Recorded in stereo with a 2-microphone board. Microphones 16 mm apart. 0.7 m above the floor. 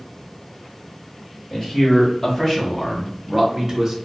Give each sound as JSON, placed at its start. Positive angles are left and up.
{"t": 1.5, "sound": "a man speaking", "side_deg": 30, "distance_m": 1.8}